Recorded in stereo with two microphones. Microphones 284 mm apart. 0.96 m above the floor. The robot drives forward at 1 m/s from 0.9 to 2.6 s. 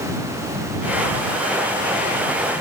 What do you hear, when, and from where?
Only background noise.